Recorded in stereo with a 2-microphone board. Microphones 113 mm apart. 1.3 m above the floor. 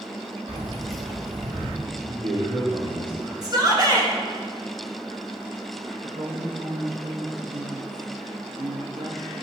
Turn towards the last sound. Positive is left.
turn(degrees=-80)